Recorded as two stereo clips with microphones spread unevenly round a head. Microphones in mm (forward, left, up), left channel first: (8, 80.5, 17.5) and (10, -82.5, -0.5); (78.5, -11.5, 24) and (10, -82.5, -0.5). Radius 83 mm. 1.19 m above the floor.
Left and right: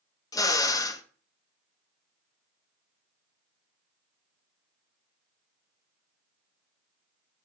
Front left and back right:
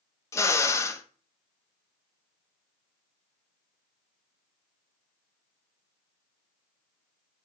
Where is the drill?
40° left, 0.6 m.